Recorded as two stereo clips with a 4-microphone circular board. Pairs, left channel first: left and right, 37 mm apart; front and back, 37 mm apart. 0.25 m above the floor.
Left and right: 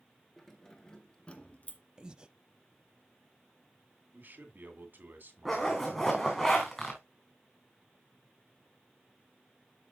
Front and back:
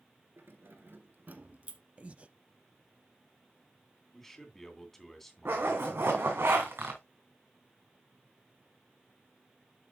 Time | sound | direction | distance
0.4 | keys jangling | 170° left | 2.5 m
2.0 | breathing | 150° right | 0.7 m
4.1 | a man speaking | 75° right | 2.5 m
5.5 | a zipper | 170° left | 3 m